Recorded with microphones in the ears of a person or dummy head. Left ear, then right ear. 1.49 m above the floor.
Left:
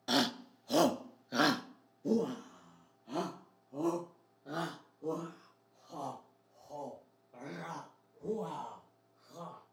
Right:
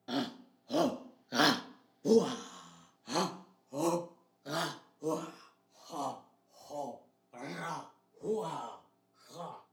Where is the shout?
40° left (ahead or behind), 0.9 m; by 9.6 s 85° right, 5 m.